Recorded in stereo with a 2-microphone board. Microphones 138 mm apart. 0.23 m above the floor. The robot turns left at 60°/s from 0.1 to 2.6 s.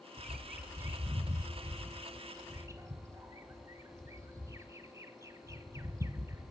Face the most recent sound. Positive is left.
turn(degrees=-20)  # may be behind; listen again after turning